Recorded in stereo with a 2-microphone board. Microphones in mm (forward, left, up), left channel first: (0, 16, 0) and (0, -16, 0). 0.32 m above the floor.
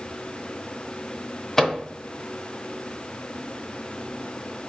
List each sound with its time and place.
1.6 s a microwave: 20° left (ahead or behind), 0.6 m